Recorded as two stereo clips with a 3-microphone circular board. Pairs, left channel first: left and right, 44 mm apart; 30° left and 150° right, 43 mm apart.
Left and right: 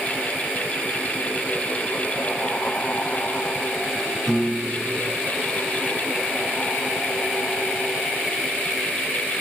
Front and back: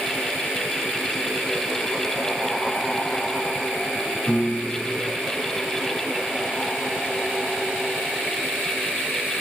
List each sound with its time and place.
4.3 s a piano: 15° left, 1.4 m